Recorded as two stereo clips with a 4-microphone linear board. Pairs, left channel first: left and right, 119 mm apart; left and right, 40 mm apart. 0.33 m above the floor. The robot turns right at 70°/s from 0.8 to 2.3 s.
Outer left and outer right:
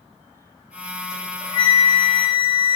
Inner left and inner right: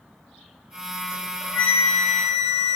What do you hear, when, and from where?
1.1 s a flute: 175° right, 1.9 m; by 2.8 s 90° right, 1.9 m